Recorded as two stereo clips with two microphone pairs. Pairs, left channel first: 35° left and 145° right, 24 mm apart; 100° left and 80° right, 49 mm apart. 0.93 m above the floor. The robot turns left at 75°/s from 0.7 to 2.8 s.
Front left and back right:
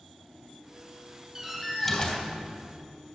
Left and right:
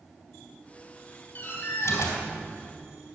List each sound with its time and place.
1.4 s a door slam: 145° left, 3.5 m; by 2.2 s 80° left, 3.5 m